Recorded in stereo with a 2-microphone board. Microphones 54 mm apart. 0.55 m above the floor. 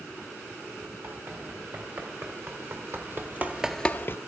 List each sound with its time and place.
1.0 s running footsteps: 50° right (ahead or behind), 4 m; by 4.2 s 45° left (ahead or behind), 0.8 m